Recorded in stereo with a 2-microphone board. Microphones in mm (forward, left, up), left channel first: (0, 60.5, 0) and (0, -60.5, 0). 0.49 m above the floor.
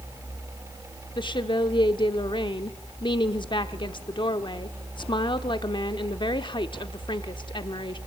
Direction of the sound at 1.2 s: 40° left (ahead or behind).